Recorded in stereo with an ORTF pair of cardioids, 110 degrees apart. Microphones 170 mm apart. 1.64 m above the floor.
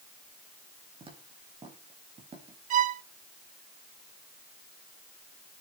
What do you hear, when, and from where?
1.0 s footsteps: 35° right, 6.5 m
2.7 s a violin: 50° right, 0.6 m